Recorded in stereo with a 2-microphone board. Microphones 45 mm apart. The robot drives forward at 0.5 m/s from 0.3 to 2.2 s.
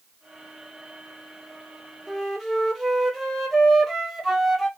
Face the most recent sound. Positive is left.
turn(degrees=0)  # may be behind; listen again after turning